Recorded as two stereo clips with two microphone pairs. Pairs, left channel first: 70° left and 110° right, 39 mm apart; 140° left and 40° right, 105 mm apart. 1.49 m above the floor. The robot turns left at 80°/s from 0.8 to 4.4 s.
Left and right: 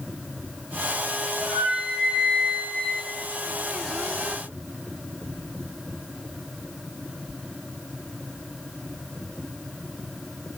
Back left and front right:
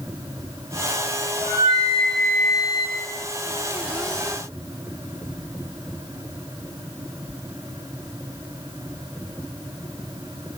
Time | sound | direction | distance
1.4 | a flute | 40° right | 2.5 m